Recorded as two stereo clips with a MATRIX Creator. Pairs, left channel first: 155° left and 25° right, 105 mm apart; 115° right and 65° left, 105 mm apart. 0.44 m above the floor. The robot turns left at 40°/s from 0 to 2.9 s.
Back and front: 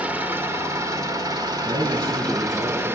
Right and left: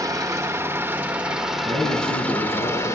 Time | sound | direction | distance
0.0 | an engine running | 45° left | 1.3 m
1.6 | a man speaking | 80° right | 5 m